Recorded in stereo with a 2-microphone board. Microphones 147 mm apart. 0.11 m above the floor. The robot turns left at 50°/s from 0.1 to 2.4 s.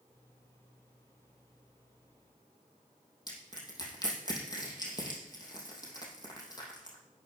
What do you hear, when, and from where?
3.3 s crushing: 30° left (ahead or behind), 3 m